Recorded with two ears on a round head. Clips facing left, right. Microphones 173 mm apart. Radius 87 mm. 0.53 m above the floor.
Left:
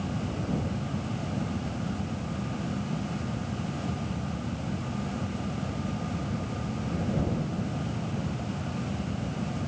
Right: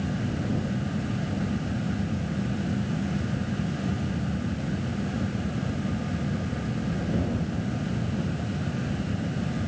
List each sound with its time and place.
Only background noise.